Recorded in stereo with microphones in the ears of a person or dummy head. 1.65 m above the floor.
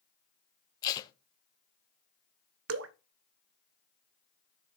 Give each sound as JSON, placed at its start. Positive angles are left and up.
{"t": 0.8, "sound": "tape being pulled", "side_deg": 25, "distance_m": 0.6}
{"t": 2.7, "sound": "dripping", "side_deg": -70, "distance_m": 0.6}